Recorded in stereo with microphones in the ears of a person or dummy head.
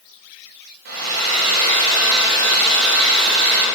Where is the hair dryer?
60° right (ahead or behind), 4.5 m.